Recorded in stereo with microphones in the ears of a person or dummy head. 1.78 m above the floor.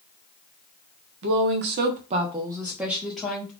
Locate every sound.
1.2 s a woman speaking: 60° right (ahead or behind), 0.6 m; by 3.5 s 5° left (ahead or behind), 1.0 m